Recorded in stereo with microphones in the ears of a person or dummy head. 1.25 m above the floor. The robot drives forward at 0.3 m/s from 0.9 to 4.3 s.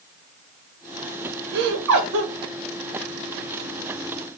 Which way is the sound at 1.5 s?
65° right (ahead or behind).